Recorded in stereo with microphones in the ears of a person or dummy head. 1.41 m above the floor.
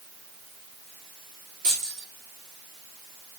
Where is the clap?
No clap in this recording.